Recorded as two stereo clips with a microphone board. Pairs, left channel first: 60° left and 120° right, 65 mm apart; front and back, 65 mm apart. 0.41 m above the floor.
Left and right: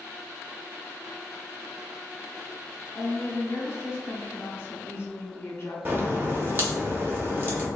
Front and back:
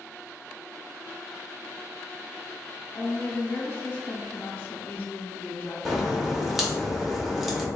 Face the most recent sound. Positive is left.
turn(degrees=-100)